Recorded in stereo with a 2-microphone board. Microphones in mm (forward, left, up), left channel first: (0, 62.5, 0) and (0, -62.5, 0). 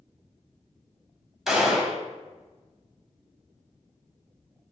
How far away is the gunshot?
About 0.8 m.